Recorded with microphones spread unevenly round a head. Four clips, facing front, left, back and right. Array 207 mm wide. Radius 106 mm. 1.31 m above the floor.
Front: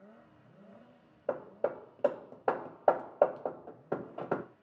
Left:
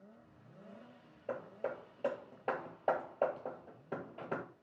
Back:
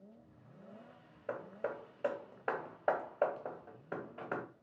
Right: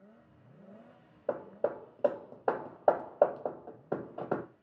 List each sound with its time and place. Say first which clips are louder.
1.3 s hammering: right 7 dB, front 6 dB; 50° right, 0.6 m